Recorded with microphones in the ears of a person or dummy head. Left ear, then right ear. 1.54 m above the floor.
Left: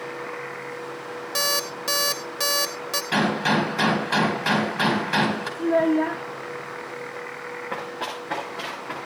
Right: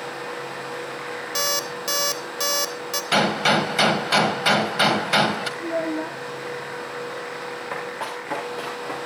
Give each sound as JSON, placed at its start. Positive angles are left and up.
{"t": 1.4, "sound": "an alarm clock", "side_deg": -5, "distance_m": 0.7}
{"t": 3.1, "sound": "a gunshot", "side_deg": -30, "distance_m": 2.0}
{"t": 5.6, "sound": "a child speaking", "side_deg": 40, "distance_m": 0.5}
{"t": 7.7, "sound": "running footsteps", "side_deg": -35, "distance_m": 6.5}